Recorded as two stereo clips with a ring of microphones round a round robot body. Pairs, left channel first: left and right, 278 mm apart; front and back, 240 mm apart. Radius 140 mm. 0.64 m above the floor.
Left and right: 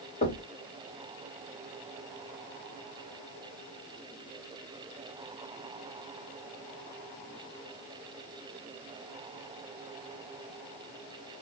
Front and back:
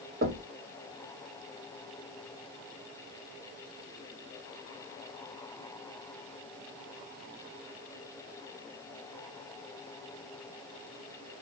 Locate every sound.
0.2 s knocking: 145° left, 1.0 m